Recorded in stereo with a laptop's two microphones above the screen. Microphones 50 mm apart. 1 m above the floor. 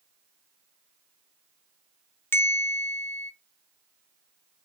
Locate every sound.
2.3 s a bell: 50° left (ahead or behind), 0.8 m